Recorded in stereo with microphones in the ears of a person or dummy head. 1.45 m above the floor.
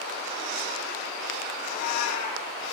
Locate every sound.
1.6 s a cat meowing: 40° left (ahead or behind), 2.5 m